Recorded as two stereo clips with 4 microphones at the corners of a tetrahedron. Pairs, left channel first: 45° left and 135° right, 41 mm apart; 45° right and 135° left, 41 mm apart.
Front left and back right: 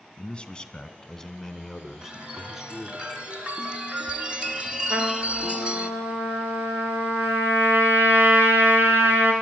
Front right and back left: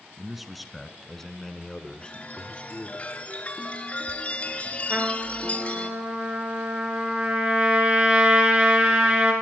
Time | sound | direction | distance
0.2 | a man speaking | 60° left | 1.6 m
2.0 | a chime | 85° right | 1.8 m
4.9 | a trumpet | 170° right | 5 m